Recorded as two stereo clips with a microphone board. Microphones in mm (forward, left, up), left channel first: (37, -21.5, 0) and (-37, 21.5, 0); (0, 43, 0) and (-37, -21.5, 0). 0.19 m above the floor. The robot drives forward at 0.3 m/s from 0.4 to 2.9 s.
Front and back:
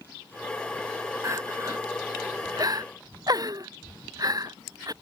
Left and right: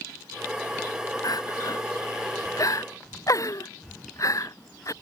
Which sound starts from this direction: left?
Crying, at 1.2 s.